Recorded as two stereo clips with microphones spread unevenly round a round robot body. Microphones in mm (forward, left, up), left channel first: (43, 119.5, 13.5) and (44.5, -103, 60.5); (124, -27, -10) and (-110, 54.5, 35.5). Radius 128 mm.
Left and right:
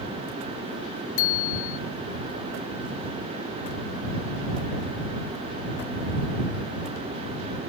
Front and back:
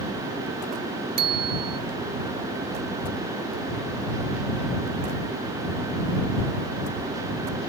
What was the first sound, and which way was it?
A bicycle bell, 130° left.